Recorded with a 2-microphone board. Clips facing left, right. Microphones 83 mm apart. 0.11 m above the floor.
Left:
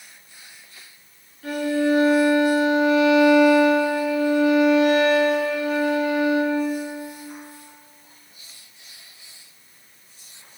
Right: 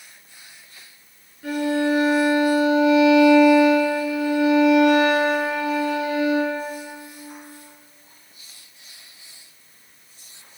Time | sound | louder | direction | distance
1.4 | a violin | even | 20° right (ahead or behind) | 1.4 m